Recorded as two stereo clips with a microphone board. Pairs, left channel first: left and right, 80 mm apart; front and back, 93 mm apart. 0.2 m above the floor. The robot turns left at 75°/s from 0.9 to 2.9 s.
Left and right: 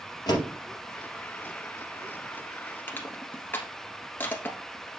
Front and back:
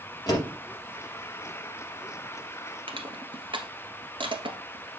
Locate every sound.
0.3 s a door slam: 50° left, 3.5 m
2.9 s crushing: 155° left, 1.3 m